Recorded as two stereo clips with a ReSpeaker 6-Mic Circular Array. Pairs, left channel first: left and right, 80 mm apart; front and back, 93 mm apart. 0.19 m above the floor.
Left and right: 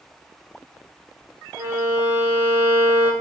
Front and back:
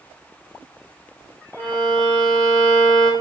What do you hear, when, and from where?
1.6 s a violin: 75° right, 2.5 m